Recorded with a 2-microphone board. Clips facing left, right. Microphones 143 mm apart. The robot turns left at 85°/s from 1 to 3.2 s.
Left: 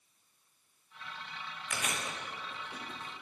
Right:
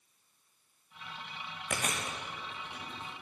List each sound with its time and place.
1.7 s chewing: 50° right (ahead or behind), 2.5 m; by 3.1 s 70° left (ahead or behind), 2.5 m